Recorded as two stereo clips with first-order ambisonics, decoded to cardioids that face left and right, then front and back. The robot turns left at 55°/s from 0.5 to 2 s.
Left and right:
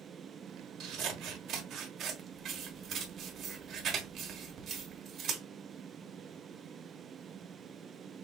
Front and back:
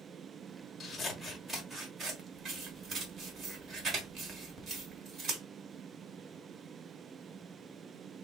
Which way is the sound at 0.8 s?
65° right.